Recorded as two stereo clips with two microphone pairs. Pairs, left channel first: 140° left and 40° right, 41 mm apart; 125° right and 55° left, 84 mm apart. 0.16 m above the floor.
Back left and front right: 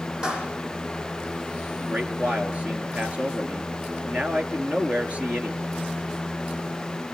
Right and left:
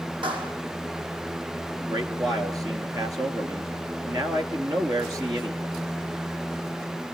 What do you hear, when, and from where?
0.2 s a clap: 35° left, 7.5 m
1.8 s a man speaking: 15° left, 3 m